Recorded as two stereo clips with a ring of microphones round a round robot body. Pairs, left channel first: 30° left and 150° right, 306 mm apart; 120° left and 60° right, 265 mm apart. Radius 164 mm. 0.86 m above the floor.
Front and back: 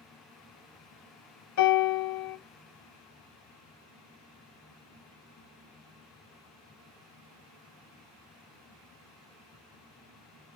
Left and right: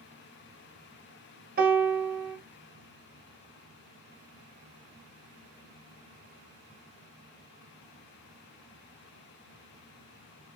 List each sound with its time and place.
1.6 s a piano: 5° right, 1.0 m